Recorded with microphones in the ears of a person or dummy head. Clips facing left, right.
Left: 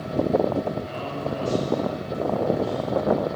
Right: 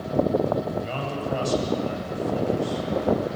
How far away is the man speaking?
About 8 m.